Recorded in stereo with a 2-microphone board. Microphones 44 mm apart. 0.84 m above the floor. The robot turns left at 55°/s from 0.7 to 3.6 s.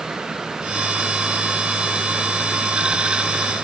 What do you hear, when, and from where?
Only background noise.